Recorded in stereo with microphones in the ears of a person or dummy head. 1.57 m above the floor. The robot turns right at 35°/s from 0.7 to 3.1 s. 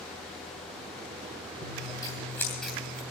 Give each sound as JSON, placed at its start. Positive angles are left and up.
{"t": 1.6, "sound": "scissors", "azimuth_deg": 145, "distance_m": 2.5}